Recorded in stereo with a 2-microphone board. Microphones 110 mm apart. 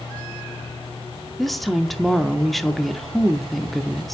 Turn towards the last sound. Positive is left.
turn(degrees=0)  # may be behind; listen again after turning